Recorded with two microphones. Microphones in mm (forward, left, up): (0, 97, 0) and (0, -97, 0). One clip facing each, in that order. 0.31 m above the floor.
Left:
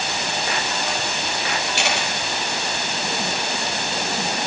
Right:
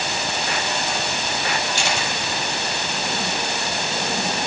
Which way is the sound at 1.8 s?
65° left (ahead or behind).